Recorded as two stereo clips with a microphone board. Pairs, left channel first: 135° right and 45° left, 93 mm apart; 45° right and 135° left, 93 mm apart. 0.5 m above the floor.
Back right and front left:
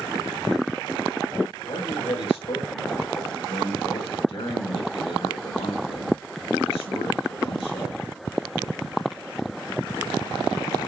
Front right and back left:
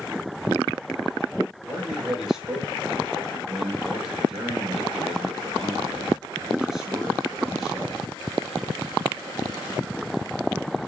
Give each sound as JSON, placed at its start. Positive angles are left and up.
{"t": 1.7, "sound": "a man speaking", "azimuth_deg": -140, "distance_m": 4.5}